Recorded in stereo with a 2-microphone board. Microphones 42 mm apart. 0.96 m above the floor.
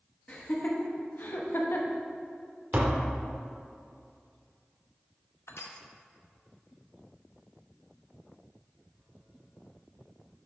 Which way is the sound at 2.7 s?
40° right (ahead or behind).